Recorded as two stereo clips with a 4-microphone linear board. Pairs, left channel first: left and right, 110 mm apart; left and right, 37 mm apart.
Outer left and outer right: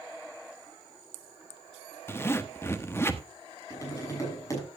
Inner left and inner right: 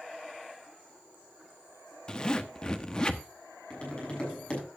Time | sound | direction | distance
2.1 | a zipper | 25° left (ahead or behind) | 1.1 m
3.7 | tapping | 30° left (ahead or behind) | 7 m